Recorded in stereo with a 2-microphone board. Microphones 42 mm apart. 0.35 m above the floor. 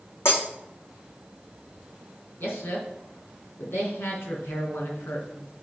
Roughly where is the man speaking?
Left.